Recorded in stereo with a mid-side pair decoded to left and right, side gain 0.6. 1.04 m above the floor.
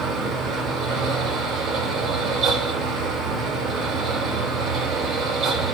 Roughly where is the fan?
Ahead right.